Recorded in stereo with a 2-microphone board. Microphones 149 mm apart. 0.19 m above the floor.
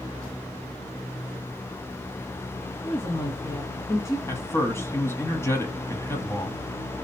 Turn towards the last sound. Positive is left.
turn(degrees=15)  # may be behind; listen again after turning